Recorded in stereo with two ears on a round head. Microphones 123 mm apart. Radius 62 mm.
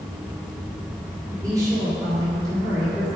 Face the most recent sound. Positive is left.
turn(degrees=-25)  # may be behind; listen again after turning